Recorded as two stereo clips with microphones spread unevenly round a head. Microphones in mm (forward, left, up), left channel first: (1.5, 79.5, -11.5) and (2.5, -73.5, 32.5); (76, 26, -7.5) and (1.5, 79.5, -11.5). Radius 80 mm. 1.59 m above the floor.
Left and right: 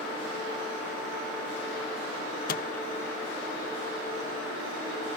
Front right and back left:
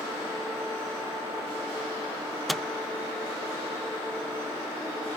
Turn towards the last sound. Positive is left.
turn(degrees=50)